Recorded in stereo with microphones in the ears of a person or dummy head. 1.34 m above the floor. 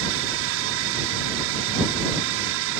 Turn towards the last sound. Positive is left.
turn(degrees=-65)  # may be behind; listen again after turning